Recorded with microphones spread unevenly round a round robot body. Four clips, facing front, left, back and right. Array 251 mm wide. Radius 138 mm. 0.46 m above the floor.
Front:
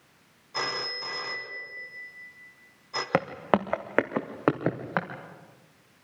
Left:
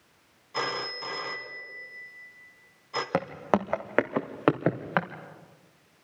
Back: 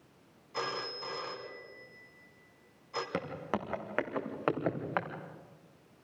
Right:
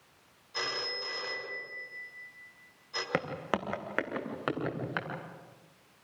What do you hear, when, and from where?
0.5 s a phone ringing: 45° left, 3 m
3.1 s footsteps: 10° left, 2.5 m; by 5.1 s 50° left, 4 m